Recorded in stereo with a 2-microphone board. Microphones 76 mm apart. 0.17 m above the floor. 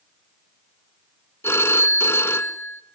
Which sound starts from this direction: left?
A phone ringing, at 1.4 s.